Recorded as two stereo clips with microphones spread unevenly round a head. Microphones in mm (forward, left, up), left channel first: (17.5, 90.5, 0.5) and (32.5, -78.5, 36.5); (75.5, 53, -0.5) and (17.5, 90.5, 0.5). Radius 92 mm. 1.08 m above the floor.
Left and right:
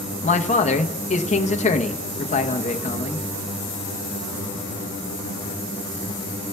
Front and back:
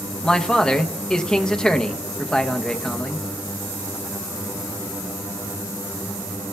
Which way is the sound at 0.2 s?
45° left.